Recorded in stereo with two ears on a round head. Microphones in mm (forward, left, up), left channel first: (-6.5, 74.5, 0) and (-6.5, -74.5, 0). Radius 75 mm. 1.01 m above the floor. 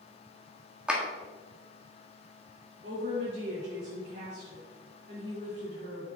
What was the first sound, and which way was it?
A clap, 5° right (ahead or behind).